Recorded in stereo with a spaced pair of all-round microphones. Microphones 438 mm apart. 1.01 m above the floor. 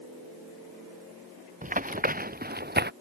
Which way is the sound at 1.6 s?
20° right (ahead or behind).